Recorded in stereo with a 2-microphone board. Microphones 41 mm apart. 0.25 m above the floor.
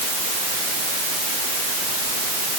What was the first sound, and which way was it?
Only background noise.